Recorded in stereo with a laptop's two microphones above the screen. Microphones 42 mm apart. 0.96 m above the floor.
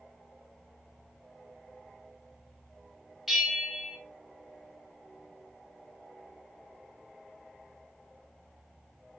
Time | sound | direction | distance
3.3 | a bell | centre (ahead or behind) | 0.8 m